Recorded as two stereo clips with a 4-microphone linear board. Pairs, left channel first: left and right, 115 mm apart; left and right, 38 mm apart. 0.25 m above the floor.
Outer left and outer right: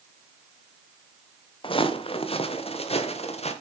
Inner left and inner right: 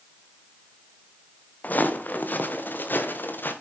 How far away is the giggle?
No giggle in this recording.